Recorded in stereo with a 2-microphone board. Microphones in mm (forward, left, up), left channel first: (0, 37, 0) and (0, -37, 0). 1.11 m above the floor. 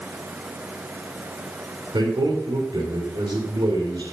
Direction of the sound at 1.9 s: 85° right.